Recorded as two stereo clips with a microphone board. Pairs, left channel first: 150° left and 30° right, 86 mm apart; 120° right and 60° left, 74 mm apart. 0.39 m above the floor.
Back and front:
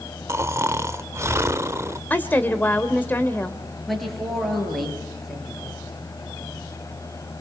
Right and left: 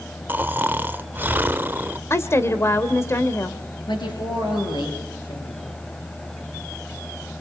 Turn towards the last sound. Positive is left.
turn(degrees=-120)